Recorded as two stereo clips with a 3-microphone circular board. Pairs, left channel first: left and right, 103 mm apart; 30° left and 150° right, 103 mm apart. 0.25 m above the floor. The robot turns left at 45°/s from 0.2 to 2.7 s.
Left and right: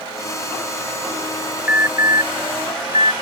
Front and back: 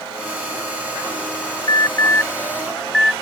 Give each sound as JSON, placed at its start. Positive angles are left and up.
{"t": 1.7, "sound": "an alarm", "azimuth_deg": -15}